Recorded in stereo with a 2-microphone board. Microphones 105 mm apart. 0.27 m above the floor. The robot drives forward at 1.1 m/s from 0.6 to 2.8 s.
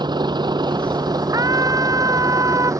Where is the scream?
35° right (ahead or behind); by 2.7 s 30° right (ahead or behind).